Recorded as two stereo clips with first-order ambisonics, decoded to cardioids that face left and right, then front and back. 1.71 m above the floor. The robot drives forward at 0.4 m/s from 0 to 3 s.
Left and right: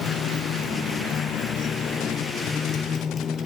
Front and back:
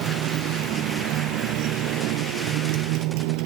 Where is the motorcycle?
140° left; by 3.5 s 160° left.